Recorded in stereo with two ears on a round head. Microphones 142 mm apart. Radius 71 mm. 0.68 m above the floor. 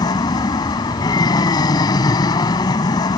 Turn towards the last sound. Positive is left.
turn(degrees=25)  # may be behind; listen again after turning